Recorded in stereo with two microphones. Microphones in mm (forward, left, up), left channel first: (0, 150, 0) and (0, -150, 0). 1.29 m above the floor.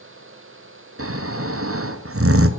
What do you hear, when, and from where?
1.0 s snoring: 50° right (ahead or behind), 0.5 m